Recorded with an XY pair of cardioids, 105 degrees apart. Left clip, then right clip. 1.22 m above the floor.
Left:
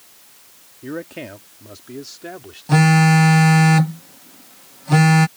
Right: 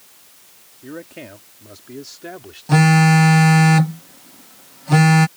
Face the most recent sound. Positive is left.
turn(degrees=-5)